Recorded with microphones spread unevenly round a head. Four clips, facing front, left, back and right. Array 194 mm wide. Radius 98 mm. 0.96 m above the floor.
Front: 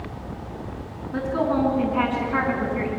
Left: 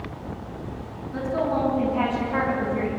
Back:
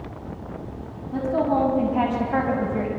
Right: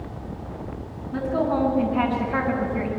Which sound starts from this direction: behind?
A woman speaking, at 1.1 s.